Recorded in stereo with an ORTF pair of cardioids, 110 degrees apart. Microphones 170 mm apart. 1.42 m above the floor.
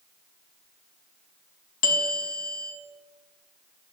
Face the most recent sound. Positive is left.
turn(degrees=60)